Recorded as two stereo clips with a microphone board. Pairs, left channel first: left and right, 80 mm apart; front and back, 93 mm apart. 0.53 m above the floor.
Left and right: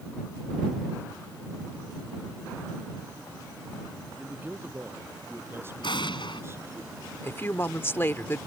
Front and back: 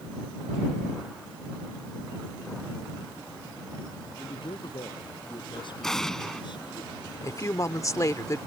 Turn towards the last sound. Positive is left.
turn(degrees=40)